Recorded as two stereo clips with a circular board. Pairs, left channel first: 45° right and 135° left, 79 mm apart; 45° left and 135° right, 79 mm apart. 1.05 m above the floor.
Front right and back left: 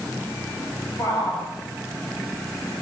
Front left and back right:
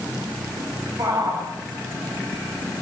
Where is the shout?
95° right, 6 m.